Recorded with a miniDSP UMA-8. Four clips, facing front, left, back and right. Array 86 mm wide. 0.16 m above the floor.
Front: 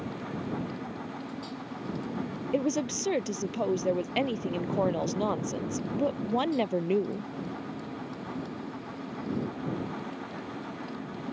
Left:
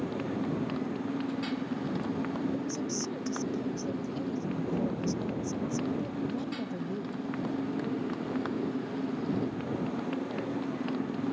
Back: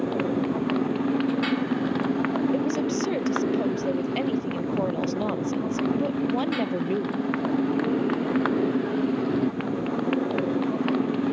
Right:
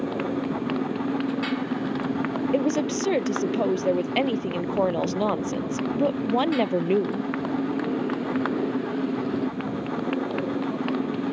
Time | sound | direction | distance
0.0 | a motorcycle | 150° right | ?
2.5 | a woman speaking | 85° right | ?